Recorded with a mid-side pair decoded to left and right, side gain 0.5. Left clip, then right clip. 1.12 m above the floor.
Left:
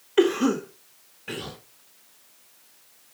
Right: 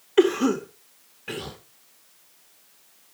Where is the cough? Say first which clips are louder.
Right 1 dB; 10° right, 1.7 m.